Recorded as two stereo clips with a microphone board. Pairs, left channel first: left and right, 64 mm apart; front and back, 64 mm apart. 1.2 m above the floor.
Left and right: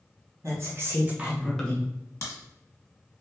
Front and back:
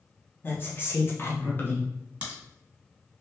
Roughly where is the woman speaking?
Ahead right.